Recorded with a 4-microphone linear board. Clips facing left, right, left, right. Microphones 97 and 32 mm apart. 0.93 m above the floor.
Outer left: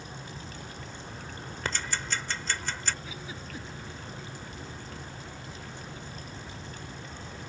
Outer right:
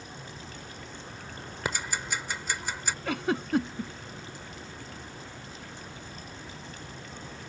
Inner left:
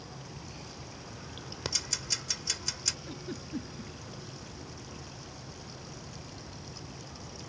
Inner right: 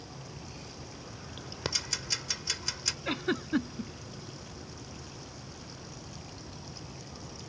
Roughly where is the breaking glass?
No breaking glass in this recording.